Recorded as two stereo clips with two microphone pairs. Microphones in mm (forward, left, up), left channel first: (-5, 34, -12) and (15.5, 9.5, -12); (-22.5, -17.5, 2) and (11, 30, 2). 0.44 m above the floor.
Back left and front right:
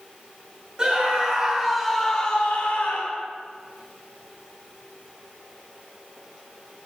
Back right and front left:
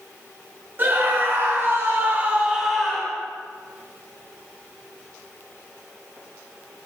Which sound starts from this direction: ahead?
A scream, at 0.8 s.